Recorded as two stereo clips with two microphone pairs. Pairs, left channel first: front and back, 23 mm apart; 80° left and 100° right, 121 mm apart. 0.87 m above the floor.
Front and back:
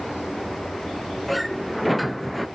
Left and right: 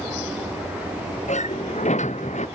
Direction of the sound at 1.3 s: 95° left.